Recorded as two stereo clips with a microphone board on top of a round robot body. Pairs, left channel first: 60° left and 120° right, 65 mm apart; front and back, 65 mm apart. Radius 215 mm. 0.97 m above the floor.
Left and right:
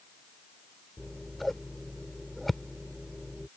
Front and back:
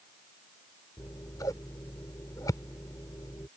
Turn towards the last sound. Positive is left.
turn(degrees=-30)